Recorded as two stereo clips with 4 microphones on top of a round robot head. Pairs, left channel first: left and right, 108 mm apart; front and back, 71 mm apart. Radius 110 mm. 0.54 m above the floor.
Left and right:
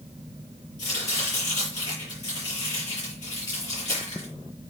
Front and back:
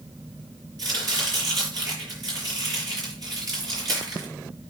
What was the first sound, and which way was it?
Chopping, 150° left.